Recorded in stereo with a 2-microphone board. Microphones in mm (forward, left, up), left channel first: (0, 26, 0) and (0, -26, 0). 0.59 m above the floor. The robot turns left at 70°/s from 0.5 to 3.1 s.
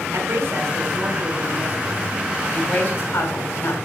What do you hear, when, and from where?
0.1 s a woman speaking: 55° right, 4 m; by 3.8 s 125° left, 4 m